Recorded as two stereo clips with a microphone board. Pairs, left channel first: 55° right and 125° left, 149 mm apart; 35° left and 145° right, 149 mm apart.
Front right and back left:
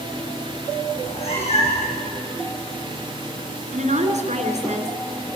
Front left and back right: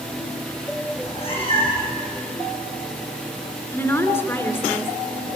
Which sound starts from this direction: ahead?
A cat meowing, at 1.0 s.